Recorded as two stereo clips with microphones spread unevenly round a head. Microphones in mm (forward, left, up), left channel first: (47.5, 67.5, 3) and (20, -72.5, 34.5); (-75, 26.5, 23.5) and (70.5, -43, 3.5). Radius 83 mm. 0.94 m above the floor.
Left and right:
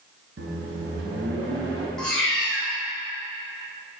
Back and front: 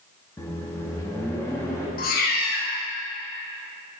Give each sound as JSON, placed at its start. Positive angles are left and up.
{"t": 0.4, "sound": "a microwave", "azimuth_deg": -130, "distance_m": 0.9}
{"t": 2.0, "sound": "a cat meowing", "azimuth_deg": 170, "distance_m": 1.0}